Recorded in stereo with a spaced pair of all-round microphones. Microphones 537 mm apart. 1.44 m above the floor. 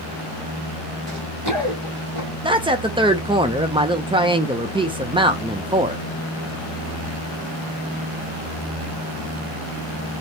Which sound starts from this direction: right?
Running footsteps, at 1.1 s.